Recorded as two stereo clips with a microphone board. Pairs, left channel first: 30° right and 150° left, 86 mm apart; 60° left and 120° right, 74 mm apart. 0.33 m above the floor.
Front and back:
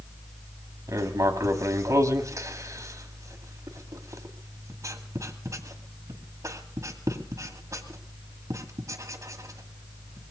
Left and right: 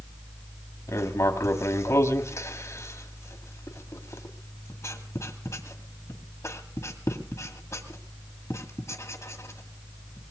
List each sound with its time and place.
0.9 s writing: 105° left, 1.8 m